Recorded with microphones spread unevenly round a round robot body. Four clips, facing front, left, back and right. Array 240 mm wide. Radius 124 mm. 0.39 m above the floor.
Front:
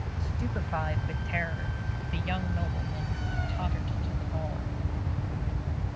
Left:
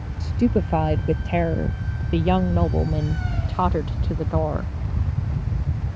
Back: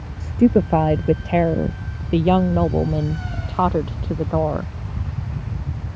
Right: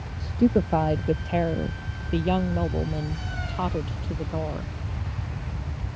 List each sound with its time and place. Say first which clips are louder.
0.2 s a woman speaking: even, back 22 dB; 175° right; by 4.7 s 165° left